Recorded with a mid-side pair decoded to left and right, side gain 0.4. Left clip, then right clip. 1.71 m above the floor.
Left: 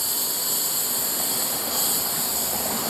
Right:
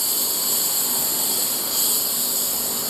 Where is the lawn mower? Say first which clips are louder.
Right 3 dB; 25° right.